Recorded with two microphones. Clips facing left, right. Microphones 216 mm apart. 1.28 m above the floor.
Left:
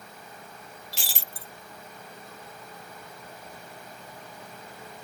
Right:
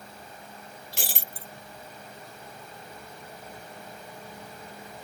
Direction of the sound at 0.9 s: 60° right (ahead or behind).